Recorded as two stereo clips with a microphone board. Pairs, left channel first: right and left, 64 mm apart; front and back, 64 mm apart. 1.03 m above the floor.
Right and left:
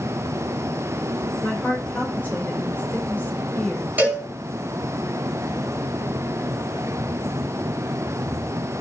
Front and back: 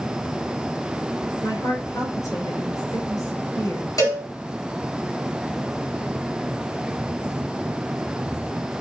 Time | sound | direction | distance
1.4 | a woman speaking | 25° right | 3.5 m
4.0 | a cowbell | 25° left | 4.5 m